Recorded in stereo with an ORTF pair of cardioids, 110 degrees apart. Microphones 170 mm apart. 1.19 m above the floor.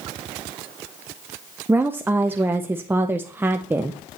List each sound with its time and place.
1.7 s a woman speaking: 10° right, 0.5 m